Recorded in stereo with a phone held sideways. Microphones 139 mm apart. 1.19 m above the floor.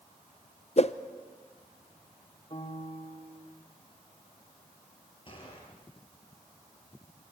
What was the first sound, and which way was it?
A whoosh, 50° left (ahead or behind).